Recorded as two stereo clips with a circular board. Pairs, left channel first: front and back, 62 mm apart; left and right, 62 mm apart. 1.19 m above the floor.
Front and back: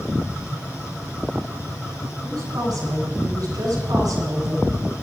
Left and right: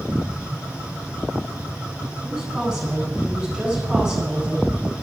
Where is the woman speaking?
175° right, 9 m.